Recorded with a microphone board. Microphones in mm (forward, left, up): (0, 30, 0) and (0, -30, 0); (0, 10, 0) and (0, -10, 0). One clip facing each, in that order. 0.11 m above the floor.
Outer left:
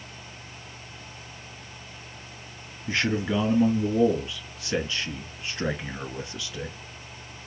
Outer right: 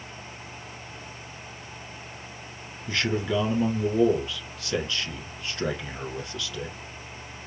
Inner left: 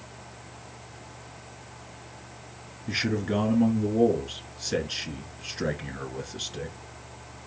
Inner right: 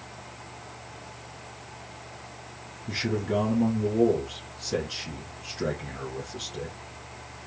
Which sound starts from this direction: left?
A man speaking, at 2.9 s.